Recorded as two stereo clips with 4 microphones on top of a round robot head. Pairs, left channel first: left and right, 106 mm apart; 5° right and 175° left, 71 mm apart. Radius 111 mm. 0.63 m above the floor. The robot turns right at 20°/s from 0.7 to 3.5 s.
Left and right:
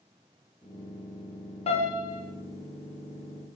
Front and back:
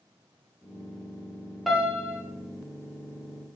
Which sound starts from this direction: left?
A piano, at 1.7 s.